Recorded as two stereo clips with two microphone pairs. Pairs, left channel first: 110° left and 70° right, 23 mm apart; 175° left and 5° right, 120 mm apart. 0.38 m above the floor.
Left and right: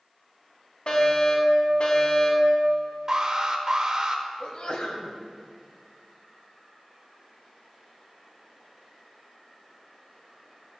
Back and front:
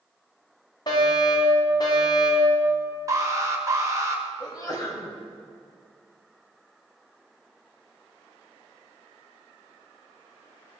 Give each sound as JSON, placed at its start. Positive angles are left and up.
{"t": 0.9, "sound": "a fire alarm", "azimuth_deg": 130, "distance_m": 4.5}
{"t": 3.1, "sound": "an alarm", "azimuth_deg": -50, "distance_m": 1.5}
{"t": 4.4, "sound": "a sneeze", "azimuth_deg": 125, "distance_m": 2.0}